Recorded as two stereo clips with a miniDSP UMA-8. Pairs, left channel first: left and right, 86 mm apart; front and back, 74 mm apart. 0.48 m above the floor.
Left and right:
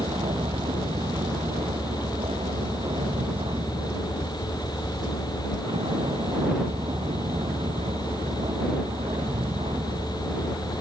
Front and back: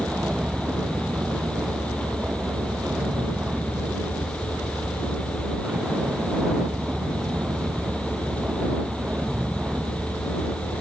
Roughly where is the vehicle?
Right.